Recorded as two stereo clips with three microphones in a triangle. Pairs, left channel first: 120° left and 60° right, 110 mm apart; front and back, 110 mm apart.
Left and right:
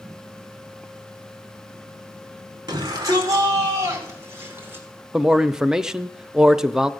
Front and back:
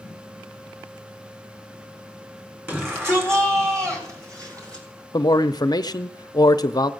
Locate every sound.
2.7 s a shout: 110° right, 4 m; by 4.8 s 130° right, 4.5 m
5.1 s a man speaking: 20° left, 0.7 m